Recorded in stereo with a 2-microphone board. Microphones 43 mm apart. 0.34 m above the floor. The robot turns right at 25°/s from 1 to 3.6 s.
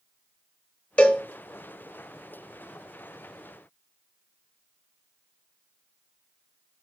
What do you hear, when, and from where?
1.0 s a cowbell: 30° left (ahead or behind), 0.9 m